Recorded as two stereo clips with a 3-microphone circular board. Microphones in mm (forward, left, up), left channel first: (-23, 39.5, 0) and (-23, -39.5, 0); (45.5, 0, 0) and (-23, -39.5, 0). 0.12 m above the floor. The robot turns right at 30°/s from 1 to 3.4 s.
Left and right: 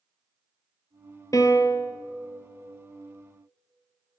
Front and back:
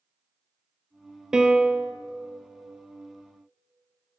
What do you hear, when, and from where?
1.3 s a piano: 130° left, 0.7 m; by 1.9 s 150° left, 0.7 m